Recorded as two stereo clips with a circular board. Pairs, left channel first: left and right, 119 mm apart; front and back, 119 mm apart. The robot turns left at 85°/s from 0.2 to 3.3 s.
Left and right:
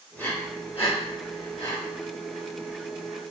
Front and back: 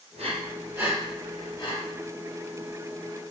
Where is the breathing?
165° left, 1.1 m; by 1.8 s 35° left, 1.1 m.